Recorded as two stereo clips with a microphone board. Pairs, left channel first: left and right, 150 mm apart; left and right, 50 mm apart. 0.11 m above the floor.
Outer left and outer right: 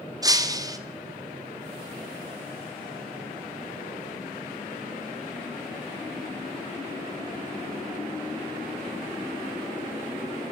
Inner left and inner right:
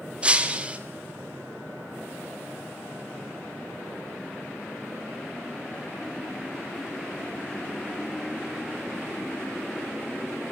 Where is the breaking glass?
25° right (ahead or behind), 3 m.